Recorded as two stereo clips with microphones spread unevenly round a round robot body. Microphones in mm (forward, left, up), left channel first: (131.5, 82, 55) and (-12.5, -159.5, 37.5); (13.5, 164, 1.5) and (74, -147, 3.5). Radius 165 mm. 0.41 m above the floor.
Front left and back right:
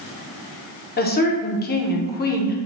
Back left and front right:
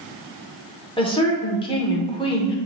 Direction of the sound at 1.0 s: 45° left.